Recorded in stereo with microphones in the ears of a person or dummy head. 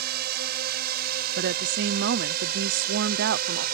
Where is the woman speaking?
60° right (ahead or behind).